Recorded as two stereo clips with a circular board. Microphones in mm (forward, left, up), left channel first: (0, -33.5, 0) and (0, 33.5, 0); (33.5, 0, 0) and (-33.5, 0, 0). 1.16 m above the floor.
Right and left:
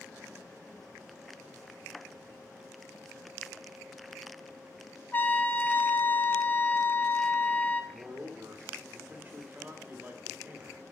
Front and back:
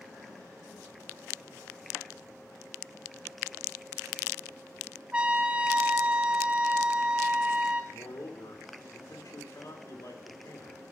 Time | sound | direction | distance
5.1 | a trumpet | 120° right | 0.6 m
7.9 | a man speaking | 25° left | 2 m